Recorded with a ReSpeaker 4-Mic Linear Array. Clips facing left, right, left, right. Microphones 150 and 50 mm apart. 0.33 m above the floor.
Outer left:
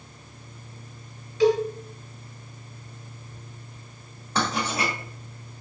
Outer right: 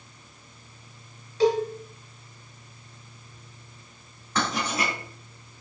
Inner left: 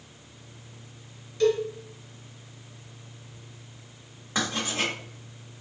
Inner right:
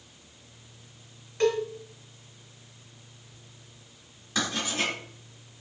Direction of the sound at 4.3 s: 30° left (ahead or behind).